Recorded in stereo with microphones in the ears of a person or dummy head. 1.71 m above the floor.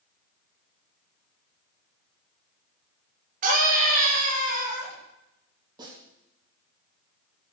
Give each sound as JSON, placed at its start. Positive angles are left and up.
{"t": 3.4, "sound": "a scream", "side_deg": -50, "distance_m": 7.0}
{"t": 5.8, "sound": "a snare drum", "side_deg": -25, "distance_m": 9.0}